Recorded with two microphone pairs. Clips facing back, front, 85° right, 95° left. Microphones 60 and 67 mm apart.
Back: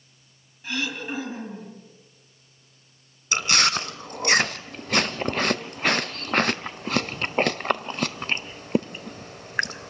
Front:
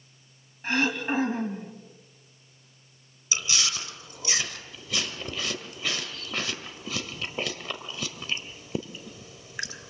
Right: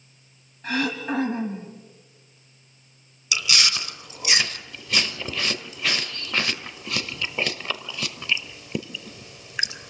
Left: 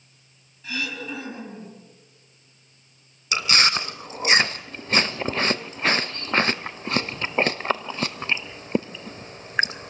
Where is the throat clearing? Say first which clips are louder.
Front 4 dB, right 6 dB; 40° right, 3 m.